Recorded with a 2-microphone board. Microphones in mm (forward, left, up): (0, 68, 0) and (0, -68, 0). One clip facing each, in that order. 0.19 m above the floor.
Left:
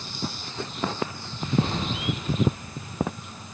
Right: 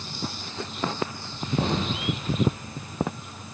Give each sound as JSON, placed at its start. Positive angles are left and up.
{"t": 1.6, "sound": "an explosion", "side_deg": -80, "distance_m": 3.5}